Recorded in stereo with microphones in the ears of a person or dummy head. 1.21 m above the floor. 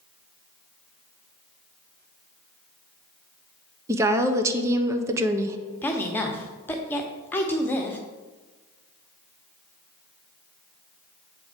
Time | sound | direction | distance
3.9 | a woman speaking | 15° right (ahead or behind) | 0.5 m
5.8 | a woman speaking | 15° left (ahead or behind) | 0.9 m